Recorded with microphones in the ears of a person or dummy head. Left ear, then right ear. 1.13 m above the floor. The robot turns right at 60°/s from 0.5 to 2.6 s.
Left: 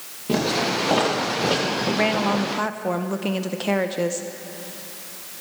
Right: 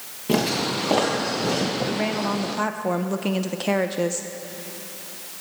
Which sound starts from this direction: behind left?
A woman speaking, at 1.9 s.